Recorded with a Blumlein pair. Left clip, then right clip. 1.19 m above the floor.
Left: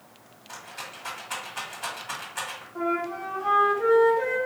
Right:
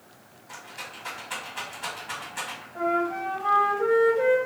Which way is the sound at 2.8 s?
5° right.